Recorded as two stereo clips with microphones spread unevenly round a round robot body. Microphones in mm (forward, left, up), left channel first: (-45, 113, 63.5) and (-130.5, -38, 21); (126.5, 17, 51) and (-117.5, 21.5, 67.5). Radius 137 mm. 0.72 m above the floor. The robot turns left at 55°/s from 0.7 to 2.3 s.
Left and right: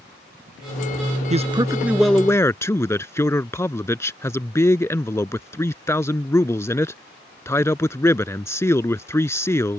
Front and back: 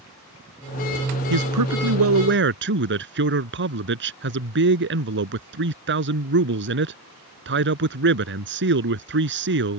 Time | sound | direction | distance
1.3 | a man speaking | 170° right | ?